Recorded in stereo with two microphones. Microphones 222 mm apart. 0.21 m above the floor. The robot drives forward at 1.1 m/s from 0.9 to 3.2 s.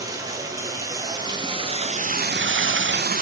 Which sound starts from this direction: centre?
Running water, at 0.0 s.